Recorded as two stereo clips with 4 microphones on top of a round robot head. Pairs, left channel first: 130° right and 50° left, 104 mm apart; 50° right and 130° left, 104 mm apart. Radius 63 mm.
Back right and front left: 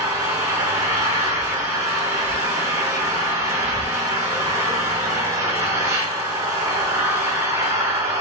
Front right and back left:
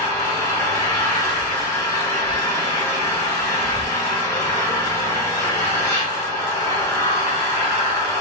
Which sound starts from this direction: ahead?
An engine running, at 0.0 s.